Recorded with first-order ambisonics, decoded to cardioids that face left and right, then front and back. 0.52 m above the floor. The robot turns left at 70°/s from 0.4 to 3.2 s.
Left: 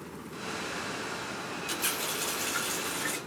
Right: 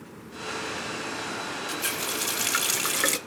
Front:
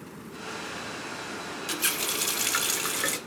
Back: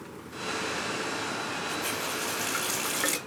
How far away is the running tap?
About 0.8 m.